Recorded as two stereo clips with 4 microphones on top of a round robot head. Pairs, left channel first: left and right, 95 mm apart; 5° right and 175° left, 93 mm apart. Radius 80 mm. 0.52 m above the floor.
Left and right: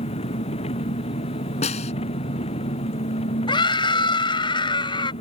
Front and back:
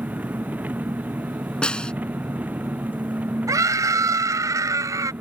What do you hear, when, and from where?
0.0 s an engine running: 100° left
1.6 s a snare drum: 75° left
3.5 s a scream: 120° left